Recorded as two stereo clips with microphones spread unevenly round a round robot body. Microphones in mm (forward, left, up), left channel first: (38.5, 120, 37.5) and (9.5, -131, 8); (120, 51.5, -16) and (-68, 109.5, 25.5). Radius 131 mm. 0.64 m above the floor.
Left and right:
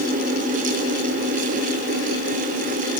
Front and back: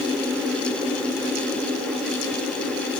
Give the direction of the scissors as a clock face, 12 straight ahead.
No scissors in this recording.